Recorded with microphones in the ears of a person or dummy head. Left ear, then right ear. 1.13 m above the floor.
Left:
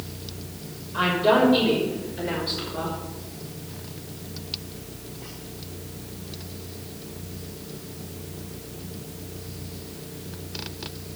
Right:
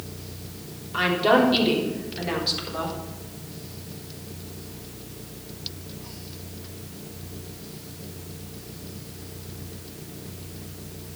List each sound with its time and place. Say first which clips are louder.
0.9 s a woman speaking: even; 45° right (ahead or behind), 3.5 m; by 3.0 s 25° right (ahead or behind), 4 m